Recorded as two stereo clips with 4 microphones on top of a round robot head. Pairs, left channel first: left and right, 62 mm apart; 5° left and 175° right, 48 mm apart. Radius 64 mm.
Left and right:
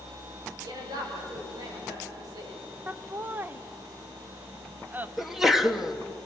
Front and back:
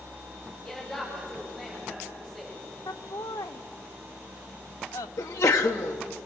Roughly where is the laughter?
Ahead right.